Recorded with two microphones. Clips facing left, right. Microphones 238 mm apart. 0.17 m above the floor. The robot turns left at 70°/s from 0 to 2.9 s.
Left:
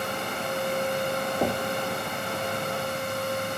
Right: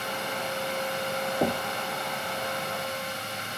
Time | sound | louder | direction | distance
1.4 | knocking | even | 5° right (ahead or behind) | 0.7 m